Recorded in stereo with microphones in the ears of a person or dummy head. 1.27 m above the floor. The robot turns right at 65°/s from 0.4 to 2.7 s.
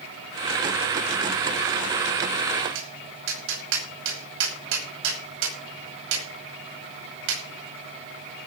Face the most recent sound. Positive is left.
turn(degrees=-75)  # may be behind; listen again after turning